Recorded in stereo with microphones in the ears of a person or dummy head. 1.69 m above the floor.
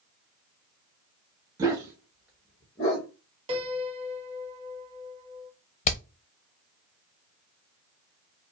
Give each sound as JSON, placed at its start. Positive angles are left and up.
{"t": 1.6, "sound": "a dog barking", "side_deg": -15, "distance_m": 1.3}
{"t": 3.5, "sound": "a piano", "side_deg": -30, "distance_m": 1.5}
{"t": 5.8, "sound": "hammering", "side_deg": 45, "distance_m": 0.9}